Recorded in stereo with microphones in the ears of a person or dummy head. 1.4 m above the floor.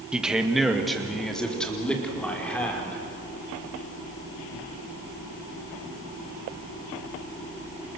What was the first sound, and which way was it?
A man speaking, 10° right (ahead or behind).